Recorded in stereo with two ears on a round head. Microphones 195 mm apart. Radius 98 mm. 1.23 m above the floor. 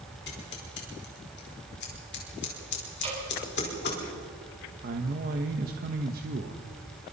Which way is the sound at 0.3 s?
50° left (ahead or behind).